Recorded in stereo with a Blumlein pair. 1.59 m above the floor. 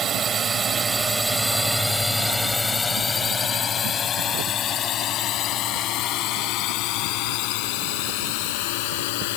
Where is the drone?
25° right; by 9.4 s 50° left.